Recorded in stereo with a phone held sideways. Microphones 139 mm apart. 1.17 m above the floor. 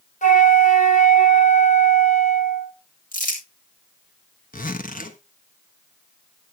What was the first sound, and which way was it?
A flute, 65° left (ahead or behind).